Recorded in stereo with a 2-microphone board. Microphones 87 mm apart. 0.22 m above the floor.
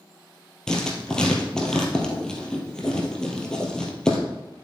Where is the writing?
10° left (ahead or behind), 2 m.